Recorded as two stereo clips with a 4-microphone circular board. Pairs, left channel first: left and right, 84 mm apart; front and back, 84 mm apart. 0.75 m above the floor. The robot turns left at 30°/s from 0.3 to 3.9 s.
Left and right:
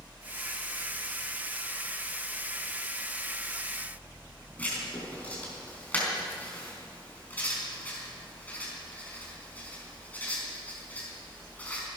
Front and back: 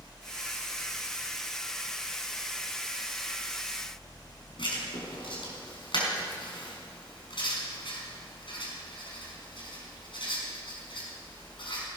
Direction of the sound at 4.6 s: 20° left.